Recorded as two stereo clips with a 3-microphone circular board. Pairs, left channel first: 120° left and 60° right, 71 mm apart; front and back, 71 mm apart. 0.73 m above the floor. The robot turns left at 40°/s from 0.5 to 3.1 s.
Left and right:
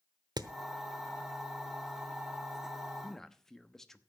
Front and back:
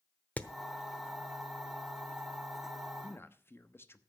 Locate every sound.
0.4 s hammering: 70° right, 0.8 m
3.0 s a man speaking: 45° left, 0.9 m; by 4.0 s 40° left, 0.9 m